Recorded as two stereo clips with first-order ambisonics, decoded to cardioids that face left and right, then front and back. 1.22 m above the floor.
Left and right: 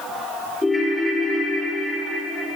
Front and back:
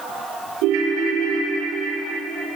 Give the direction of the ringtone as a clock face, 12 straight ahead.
6 o'clock.